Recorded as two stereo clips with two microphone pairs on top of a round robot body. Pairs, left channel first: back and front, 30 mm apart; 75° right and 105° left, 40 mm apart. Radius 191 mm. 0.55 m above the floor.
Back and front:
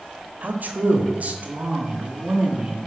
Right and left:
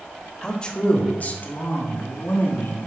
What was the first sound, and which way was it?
A man speaking, straight ahead.